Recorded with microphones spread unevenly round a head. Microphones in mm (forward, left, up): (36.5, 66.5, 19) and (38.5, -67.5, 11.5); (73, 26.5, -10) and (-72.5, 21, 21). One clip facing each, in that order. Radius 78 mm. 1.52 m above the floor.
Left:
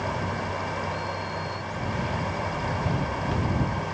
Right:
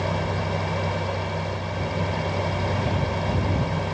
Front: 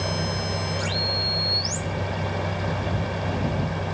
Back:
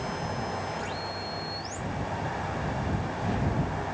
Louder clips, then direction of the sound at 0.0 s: Right 3 dB, front 4 dB; 30° right.